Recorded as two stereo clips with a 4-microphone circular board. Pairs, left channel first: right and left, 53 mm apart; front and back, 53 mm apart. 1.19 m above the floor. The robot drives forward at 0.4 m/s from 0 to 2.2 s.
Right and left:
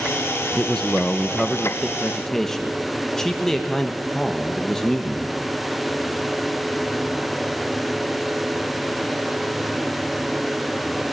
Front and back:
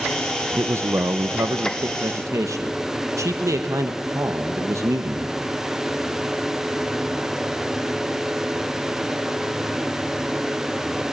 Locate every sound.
0.6 s a man speaking: 165° right, 0.6 m; by 5.3 s 175° right, 1.2 m